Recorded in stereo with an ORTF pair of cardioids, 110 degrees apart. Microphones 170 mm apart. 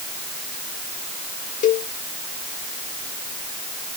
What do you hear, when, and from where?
1.6 s a cowbell: 45° left